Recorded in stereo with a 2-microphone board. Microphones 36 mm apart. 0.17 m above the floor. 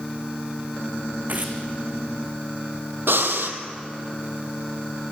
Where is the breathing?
80° right, 1.9 m.